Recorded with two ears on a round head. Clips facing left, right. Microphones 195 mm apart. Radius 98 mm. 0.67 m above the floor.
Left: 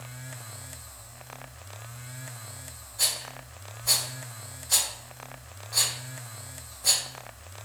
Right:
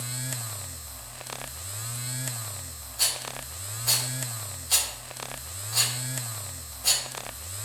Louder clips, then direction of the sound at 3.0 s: Right 2 dB; 20° right (ahead or behind).